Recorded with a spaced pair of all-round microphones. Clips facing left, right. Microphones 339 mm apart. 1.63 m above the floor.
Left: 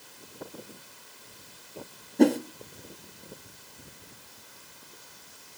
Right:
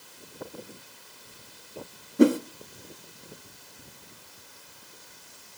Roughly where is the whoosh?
Centre.